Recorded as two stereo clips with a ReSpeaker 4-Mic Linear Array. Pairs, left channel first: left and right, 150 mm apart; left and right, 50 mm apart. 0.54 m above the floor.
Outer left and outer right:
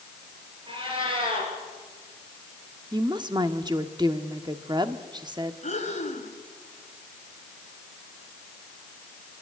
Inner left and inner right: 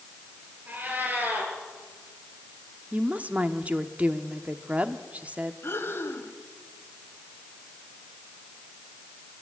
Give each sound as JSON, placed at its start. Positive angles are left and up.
{"t": 0.7, "sound": "a cat meowing", "side_deg": -35, "distance_m": 5.5}
{"t": 2.9, "sound": "a woman speaking", "side_deg": -30, "distance_m": 1.1}
{"t": 5.6, "sound": "breathing", "side_deg": 55, "distance_m": 2.5}